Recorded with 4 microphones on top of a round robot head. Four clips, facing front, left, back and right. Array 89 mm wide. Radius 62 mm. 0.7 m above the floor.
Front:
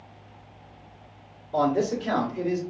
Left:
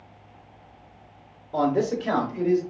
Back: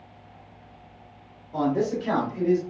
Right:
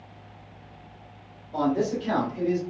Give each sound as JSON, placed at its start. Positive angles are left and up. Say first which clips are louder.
{"t": 1.5, "sound": "a man speaking", "louder": "left 2 dB, front 1 dB", "azimuth_deg": 60, "distance_m": 1.1}